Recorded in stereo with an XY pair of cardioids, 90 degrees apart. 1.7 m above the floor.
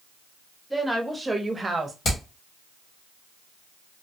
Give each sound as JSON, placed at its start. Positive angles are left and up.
{"t": 0.7, "sound": "a woman speaking", "azimuth_deg": 0, "distance_m": 1.1}
{"t": 2.0, "sound": "hammering", "azimuth_deg": 55, "distance_m": 1.7}